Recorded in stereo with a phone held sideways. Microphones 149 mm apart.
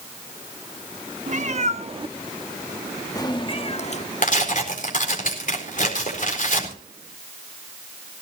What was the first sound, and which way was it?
A cat meowing, 55° right (ahead or behind).